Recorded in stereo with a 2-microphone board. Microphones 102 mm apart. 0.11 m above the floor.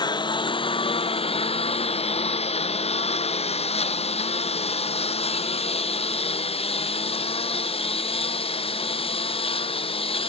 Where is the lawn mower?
45° left (ahead or behind); by 10.3 s 65° left (ahead or behind).